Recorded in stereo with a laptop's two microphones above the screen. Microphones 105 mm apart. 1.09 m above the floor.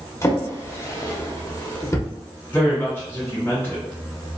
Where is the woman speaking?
20° left (ahead or behind), 1.7 m.